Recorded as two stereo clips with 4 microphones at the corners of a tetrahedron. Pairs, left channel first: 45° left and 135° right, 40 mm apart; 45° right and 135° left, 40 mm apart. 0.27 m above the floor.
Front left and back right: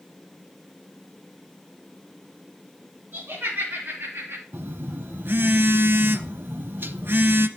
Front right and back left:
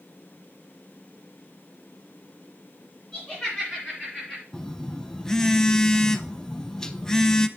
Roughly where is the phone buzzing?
Behind right.